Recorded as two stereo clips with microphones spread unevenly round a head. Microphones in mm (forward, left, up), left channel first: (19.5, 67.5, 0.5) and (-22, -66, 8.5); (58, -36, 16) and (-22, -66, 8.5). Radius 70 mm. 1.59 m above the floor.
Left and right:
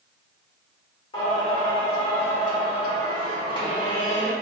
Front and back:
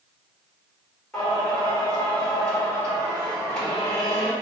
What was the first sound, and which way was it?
Singing, 70° left.